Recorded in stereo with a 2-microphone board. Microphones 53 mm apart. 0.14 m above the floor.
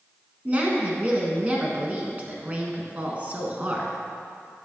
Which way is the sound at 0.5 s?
30° right (ahead or behind).